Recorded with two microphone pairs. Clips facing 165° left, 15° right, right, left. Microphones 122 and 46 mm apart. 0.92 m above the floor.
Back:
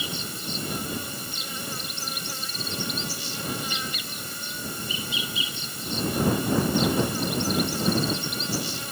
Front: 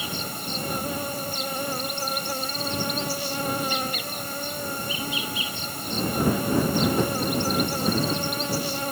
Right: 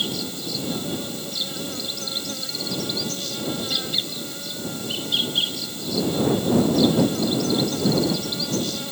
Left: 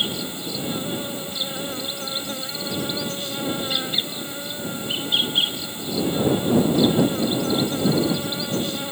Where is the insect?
20° left.